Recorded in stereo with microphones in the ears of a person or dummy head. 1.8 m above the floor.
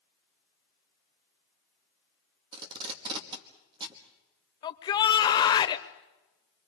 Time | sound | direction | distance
2.5 | tape being pulled | 30° right (ahead or behind) | 1.6 m
4.6 | a shout | 30° left (ahead or behind) | 1.1 m